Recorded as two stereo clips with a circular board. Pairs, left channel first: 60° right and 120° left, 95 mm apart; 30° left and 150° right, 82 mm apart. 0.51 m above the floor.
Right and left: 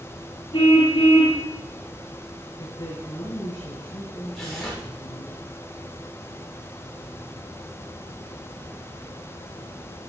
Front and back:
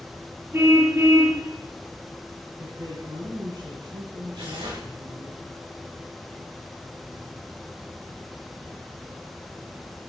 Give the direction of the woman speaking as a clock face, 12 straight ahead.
4 o'clock.